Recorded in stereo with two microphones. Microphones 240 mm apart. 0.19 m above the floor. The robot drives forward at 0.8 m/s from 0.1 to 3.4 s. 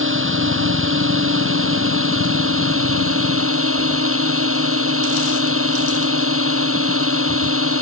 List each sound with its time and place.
0.0 s a drone: 60° right (ahead or behind); by 7.8 s 65° right (ahead or behind)